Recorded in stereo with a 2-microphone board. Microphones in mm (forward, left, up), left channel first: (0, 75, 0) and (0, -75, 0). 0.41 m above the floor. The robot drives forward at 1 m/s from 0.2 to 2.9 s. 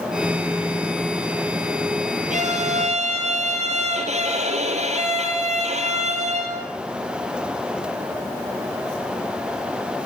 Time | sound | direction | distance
2.3 | a violin | 55° right (ahead or behind) | 4 m